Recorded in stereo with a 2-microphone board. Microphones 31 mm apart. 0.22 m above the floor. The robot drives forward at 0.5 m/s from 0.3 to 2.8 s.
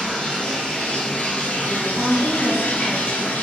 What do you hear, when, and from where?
0.0 s running water: 30° left (ahead or behind), 1.2 m; by 3.4 s 70° left (ahead or behind), 0.6 m
1.7 s a woman speaking: 35° right (ahead or behind), 1.4 m